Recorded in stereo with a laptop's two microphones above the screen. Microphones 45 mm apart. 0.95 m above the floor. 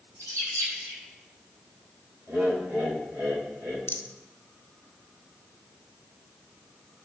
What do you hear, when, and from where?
0.2 s a bird: 75° right (ahead or behind), 6 m
2.3 s laughter: 60° right (ahead or behind), 4 m
3.9 s a rattle: 70° left (ahead or behind), 0.8 m